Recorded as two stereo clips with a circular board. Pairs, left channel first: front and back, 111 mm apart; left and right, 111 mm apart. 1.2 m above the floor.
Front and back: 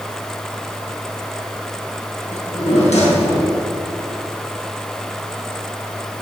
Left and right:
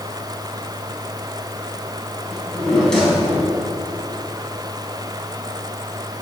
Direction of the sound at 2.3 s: 5° left.